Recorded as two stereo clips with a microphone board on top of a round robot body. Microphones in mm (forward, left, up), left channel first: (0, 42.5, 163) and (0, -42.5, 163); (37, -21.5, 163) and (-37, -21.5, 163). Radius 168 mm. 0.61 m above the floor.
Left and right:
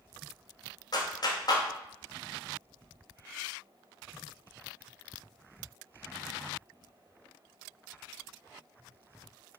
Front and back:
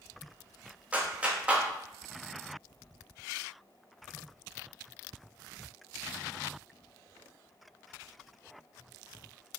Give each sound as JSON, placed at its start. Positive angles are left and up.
{"t": 0.9, "sound": "a clap", "azimuth_deg": 110, "distance_m": 1.1}